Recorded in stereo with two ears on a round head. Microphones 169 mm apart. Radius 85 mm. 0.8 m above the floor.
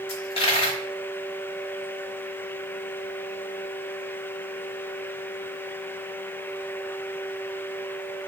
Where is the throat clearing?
I don't hear throat clearing.